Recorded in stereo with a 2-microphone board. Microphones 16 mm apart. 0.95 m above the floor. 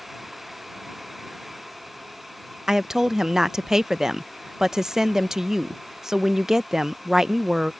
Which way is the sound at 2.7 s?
30° right (ahead or behind).